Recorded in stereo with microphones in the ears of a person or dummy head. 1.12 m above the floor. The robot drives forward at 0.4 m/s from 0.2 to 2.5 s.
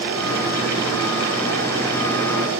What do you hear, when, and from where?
Only background noise.